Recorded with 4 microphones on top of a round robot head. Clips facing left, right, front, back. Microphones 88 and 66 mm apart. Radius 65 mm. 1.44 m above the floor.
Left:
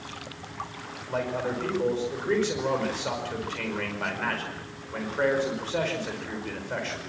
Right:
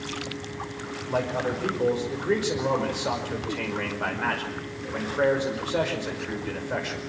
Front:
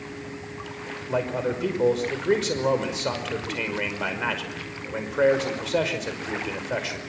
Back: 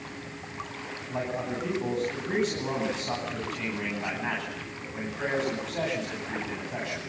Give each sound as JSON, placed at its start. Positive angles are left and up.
{"t": 1.1, "sound": "a man speaking", "azimuth_deg": -10, "distance_m": 5.5}